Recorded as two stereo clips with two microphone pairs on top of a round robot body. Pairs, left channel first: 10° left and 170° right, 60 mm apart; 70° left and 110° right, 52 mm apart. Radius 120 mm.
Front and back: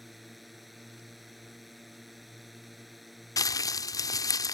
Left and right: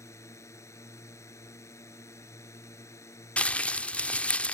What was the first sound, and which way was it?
A drone, 100° left.